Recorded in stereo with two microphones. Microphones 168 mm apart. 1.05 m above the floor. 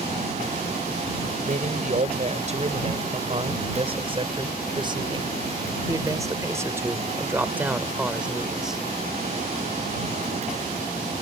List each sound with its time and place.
1.4 s a man speaking: 50° right (ahead or behind); by 8.8 s centre (ahead or behind)